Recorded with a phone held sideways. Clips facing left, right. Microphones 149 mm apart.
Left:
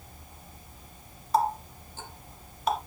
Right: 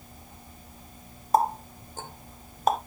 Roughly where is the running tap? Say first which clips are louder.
Right 2 dB; right.